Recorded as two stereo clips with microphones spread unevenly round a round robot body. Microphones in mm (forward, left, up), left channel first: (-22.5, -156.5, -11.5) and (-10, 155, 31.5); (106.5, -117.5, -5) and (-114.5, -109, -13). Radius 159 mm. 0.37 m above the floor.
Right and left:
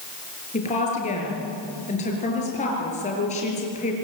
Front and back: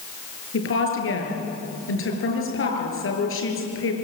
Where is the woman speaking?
25° right, 7 m.